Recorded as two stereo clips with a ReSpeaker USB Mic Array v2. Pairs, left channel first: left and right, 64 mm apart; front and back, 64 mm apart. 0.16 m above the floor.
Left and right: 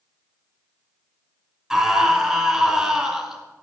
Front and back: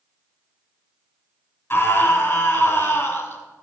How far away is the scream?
About 1.6 m.